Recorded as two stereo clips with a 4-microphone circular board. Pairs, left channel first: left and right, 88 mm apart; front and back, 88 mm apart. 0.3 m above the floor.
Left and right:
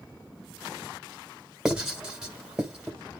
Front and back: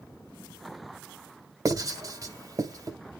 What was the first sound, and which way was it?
Writing, 170° right.